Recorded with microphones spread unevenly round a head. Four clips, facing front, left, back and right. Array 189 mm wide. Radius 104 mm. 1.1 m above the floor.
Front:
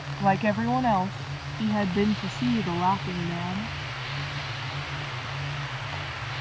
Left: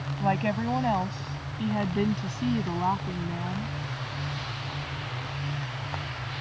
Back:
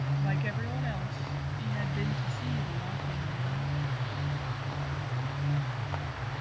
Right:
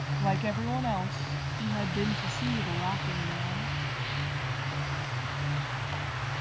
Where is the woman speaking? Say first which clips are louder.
Left 4 dB, front 11 dB; 20° left; by 3.7 s 25° left.